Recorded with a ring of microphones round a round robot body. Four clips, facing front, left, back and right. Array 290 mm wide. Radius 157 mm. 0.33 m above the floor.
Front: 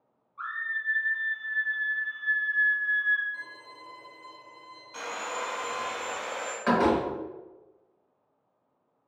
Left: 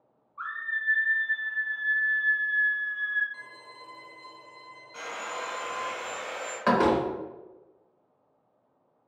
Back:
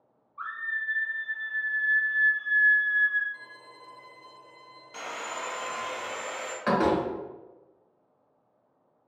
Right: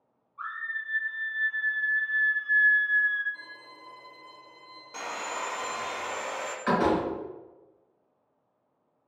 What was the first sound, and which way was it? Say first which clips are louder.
A scream: left 2 dB, even; 70° left.